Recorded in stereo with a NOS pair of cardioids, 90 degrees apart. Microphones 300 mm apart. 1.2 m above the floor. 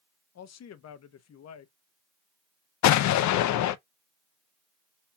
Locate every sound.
0.3 s a man speaking: 60° left, 0.9 m
2.8 s an explosion: 70° left, 0.6 m